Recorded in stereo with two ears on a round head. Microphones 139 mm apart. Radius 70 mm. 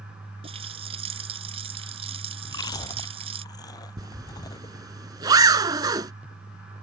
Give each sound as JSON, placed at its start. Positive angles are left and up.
{"t": 0.4, "sound": "a running tap", "side_deg": -40}
{"t": 2.5, "sound": "chewing", "side_deg": 25}
{"t": 4.0, "sound": "a zipper", "side_deg": -25}